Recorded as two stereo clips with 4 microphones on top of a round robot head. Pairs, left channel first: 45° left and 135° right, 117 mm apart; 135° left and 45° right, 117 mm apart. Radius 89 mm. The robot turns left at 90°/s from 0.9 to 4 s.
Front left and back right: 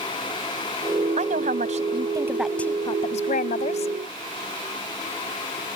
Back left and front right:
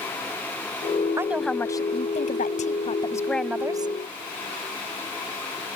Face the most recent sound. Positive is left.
turn(degrees=-5)